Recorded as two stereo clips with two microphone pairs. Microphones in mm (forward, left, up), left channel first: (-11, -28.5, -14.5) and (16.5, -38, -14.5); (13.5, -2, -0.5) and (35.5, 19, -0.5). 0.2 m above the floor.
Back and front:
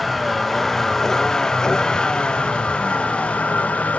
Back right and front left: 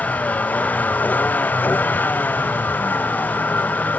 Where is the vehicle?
115° right; by 4.0 s 160° right.